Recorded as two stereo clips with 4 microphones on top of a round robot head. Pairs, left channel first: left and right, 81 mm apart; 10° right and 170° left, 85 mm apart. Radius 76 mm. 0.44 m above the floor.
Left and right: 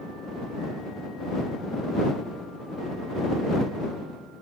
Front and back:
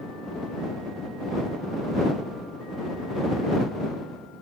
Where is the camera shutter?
I don't hear a camera shutter.